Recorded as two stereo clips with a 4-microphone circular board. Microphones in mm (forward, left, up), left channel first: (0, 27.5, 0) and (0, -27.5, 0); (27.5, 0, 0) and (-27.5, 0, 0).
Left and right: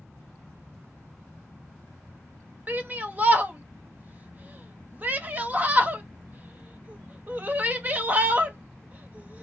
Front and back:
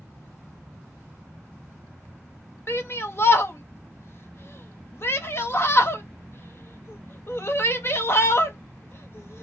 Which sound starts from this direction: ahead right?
A shout, at 2.7 s.